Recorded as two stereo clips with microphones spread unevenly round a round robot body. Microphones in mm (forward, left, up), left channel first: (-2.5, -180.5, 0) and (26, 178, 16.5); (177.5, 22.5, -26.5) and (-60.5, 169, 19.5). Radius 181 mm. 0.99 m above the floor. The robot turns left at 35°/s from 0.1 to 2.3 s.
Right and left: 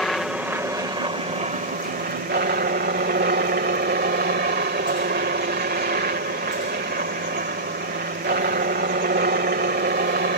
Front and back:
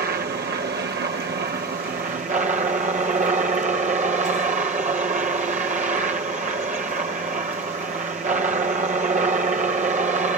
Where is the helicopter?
Straight behind; by 10.4 s 100° left.